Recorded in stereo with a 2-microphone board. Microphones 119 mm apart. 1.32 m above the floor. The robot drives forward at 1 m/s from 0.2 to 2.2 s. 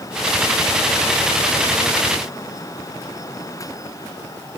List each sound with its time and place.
Only background noise.